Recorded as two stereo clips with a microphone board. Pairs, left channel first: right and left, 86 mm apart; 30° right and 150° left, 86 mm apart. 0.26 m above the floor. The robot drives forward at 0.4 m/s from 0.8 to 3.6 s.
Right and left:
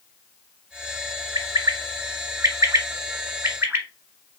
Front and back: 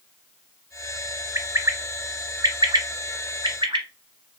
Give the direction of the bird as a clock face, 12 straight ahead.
9 o'clock.